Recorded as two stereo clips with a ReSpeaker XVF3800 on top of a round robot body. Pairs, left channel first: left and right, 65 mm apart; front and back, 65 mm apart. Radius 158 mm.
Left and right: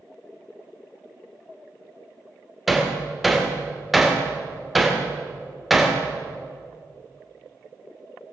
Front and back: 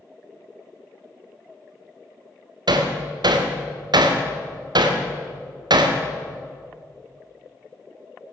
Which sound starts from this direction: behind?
Hammering, at 2.7 s.